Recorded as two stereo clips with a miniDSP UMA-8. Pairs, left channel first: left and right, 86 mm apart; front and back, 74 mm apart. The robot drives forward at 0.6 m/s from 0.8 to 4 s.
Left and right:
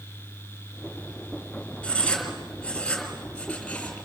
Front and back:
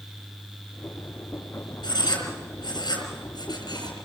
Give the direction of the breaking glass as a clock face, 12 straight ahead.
No breaking glass in this recording.